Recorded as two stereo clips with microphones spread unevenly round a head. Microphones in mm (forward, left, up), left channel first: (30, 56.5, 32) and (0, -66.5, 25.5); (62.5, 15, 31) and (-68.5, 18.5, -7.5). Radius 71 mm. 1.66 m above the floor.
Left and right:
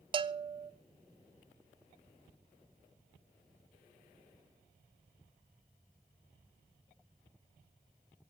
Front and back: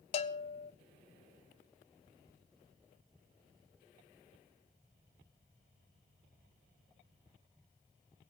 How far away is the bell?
About 0.6 m.